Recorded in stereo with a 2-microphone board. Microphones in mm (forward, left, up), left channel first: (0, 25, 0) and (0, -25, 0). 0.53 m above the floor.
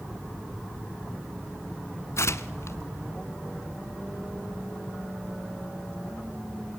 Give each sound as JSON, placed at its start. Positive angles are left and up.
{"t": 2.2, "sound": "tearing paper", "side_deg": 65, "distance_m": 0.9}